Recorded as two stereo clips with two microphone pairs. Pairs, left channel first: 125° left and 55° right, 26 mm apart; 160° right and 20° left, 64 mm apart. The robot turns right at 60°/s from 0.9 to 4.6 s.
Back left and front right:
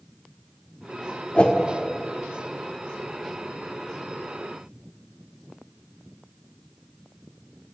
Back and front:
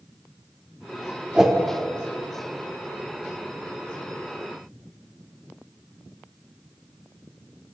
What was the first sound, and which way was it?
A whoosh, 95° left.